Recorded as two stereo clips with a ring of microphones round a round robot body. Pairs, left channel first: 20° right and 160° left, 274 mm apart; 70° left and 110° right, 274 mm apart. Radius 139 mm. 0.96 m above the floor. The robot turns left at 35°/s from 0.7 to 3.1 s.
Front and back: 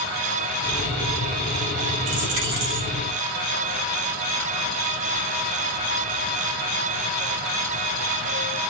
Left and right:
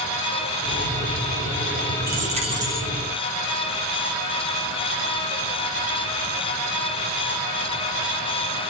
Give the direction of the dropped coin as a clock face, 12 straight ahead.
6 o'clock.